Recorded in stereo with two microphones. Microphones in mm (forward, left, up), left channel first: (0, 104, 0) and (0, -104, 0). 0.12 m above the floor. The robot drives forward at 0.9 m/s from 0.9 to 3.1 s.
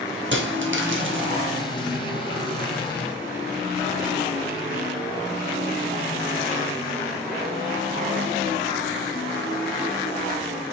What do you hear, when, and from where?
0.3 s a dropped coin: 65° right (ahead or behind), 1.8 m; by 1.3 s 70° right (ahead or behind), 1.7 m